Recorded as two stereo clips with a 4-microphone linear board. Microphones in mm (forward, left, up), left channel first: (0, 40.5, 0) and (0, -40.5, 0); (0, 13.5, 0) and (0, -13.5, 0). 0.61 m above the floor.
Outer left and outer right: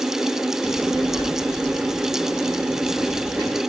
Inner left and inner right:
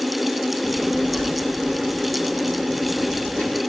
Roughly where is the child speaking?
Left.